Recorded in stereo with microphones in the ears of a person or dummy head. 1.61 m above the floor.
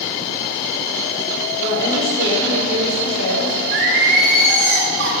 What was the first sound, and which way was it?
A woman speaking, 85° right.